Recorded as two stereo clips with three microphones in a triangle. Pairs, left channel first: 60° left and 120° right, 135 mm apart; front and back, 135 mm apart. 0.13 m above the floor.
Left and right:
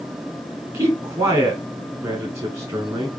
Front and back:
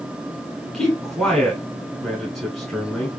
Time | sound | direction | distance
0.7 | a man speaking | 80° right | 1.1 m